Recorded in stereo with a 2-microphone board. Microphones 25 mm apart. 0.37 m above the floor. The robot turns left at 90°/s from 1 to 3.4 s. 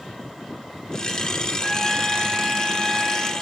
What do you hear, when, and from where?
1.6 s a trumpet: 10° left (ahead or behind), 1.1 m; by 3.3 s 20° right (ahead or behind), 1.1 m